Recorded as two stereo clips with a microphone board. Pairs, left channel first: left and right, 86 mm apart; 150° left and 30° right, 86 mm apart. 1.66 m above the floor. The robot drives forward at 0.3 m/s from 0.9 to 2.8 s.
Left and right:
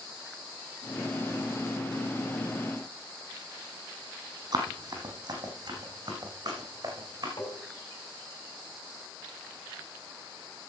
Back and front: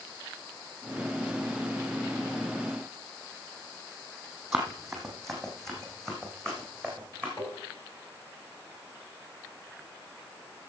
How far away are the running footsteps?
About 2.5 m.